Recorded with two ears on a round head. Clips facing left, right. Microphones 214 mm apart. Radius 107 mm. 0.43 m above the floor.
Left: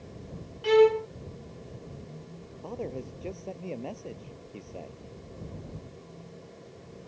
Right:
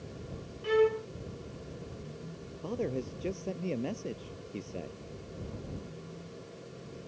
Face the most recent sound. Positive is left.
turn(degrees=-20)  # may be behind; listen again after turning